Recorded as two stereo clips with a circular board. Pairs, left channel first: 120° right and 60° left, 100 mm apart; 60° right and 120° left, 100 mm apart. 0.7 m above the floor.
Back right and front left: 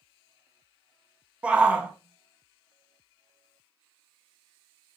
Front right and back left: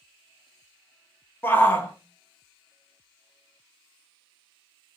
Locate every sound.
1.4 s a shout: 10° right, 0.5 m